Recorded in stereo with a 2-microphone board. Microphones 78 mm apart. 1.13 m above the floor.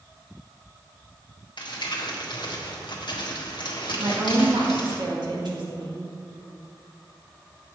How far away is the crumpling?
About 1.6 m.